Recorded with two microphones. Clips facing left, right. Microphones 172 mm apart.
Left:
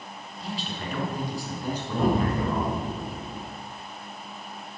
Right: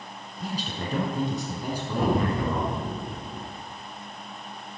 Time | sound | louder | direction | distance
0.4 | a man speaking | right 2 dB | 45° right (ahead or behind) | 2 m
2.0 | an explosion | left 1 dB | 5° left (ahead or behind) | 2 m